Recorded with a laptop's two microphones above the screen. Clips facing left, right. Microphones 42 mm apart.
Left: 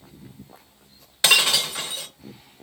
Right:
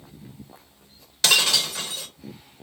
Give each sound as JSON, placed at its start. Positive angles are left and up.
{"t": 1.2, "sound": "breaking glass", "side_deg": 25, "distance_m": 0.7}